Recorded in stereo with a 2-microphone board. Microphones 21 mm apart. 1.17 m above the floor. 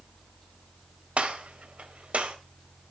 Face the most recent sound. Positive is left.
turn(degrees=-70)  # may be behind; listen again after turning